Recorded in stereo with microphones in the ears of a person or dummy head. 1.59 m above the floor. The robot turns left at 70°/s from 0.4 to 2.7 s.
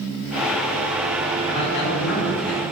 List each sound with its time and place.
1.5 s a man speaking: 150° left, 3 m; by 2.6 s 70° left, 3 m